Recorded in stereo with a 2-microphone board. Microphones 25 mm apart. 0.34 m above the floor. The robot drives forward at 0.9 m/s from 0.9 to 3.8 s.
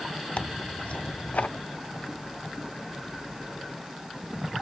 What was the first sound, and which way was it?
Tearing paper, 50° left (ahead or behind).